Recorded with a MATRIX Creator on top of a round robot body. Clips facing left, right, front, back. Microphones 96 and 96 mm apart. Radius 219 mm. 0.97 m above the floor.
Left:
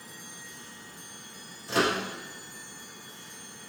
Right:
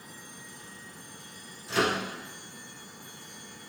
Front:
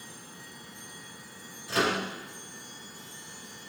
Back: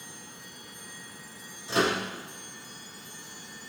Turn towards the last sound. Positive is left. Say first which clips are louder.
# left 1 dB, back 1 dB
turn(degrees=120)